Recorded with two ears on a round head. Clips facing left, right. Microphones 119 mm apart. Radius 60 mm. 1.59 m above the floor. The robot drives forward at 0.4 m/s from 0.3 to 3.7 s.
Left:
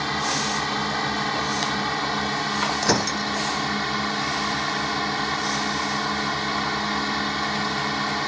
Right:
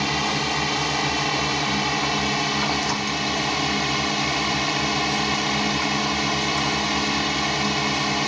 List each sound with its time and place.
0.0 s a drone: 15° right (ahead or behind); by 8.3 s 20° right (ahead or behind)
2.8 s breaking glass: 60° left (ahead or behind); by 3.3 s 65° left (ahead or behind)